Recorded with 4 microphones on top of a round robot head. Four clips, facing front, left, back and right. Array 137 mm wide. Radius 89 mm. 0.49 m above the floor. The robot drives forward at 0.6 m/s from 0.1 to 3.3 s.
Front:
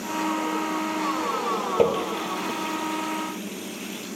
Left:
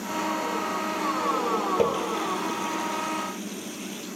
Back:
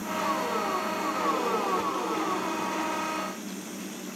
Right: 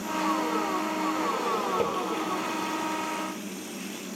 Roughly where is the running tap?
Ahead.